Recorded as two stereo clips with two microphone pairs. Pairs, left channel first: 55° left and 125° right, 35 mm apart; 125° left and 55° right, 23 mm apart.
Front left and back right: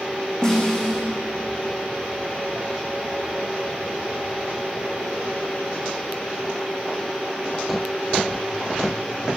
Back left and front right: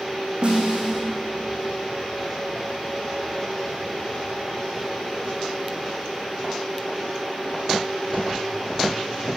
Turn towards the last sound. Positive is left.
turn(degrees=-15)